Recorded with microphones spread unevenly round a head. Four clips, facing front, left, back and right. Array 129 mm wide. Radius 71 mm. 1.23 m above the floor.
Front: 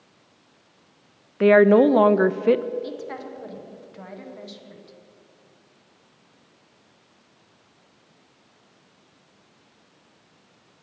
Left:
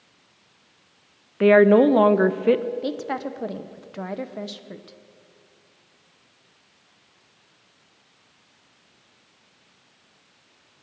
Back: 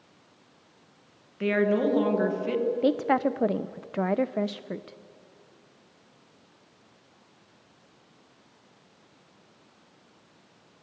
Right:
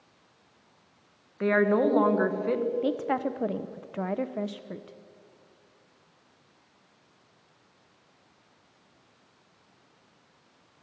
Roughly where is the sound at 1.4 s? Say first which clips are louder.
Left 9 dB, front 10 dB; ahead left.